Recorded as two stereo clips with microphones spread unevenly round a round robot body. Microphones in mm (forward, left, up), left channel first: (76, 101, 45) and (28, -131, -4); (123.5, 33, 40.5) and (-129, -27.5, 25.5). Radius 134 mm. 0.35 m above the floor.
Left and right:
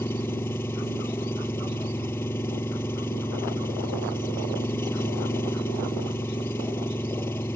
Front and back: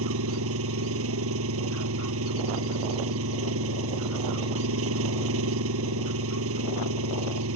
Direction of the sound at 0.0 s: 160° left.